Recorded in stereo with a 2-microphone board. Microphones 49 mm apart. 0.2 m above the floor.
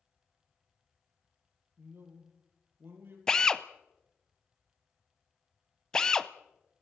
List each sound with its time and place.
1.8 s a man speaking: 55° right (ahead or behind), 5 m
3.3 s a drill: 15° left (ahead or behind), 0.6 m